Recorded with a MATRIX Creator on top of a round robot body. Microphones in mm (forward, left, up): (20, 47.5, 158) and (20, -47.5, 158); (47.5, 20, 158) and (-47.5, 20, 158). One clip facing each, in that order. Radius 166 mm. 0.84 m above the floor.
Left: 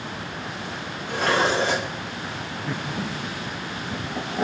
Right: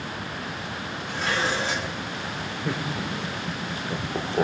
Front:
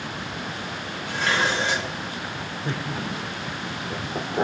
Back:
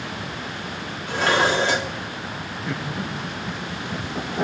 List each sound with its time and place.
1.1 s dishes clattering: 135° left, 1.8 m
2.6 s laughter: 60° right, 3.5 m